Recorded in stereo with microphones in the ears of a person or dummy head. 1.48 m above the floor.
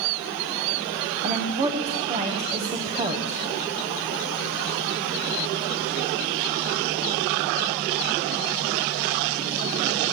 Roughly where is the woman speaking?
Right.